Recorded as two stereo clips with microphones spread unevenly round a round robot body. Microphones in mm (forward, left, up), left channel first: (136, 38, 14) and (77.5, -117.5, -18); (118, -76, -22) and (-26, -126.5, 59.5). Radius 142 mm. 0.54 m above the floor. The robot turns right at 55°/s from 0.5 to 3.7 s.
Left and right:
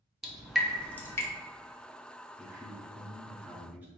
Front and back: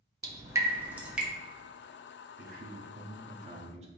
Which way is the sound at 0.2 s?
50° right.